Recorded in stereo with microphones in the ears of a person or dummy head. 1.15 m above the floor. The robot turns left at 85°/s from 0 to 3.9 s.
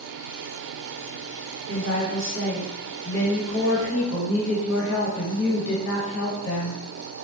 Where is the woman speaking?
70° right, 1.3 m; by 6.8 s 100° left, 1.3 m.